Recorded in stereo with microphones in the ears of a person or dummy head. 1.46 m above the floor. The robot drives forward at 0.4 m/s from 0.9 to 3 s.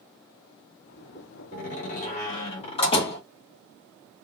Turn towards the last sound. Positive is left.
turn(degrees=25)  # may be behind; listen again after turning